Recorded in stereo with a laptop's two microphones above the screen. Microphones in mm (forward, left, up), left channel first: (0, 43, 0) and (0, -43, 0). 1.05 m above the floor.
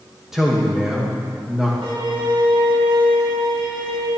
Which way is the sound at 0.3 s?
5° right (ahead or behind).